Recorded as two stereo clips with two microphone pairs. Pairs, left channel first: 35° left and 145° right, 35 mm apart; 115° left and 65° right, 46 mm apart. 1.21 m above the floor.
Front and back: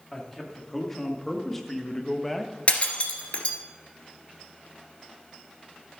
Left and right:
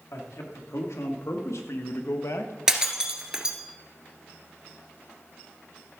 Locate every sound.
0.1 s a man speaking: 110° left, 2.5 m; by 2.6 s 120° left, 1.0 m
2.7 s breaking glass: 5° left, 1.6 m